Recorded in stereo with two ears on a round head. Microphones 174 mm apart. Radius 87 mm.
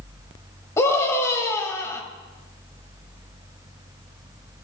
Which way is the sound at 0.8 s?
15° left (ahead or behind).